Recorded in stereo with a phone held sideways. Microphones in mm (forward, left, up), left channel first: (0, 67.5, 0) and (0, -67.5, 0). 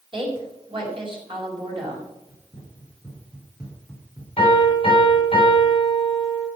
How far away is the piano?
About 7 m.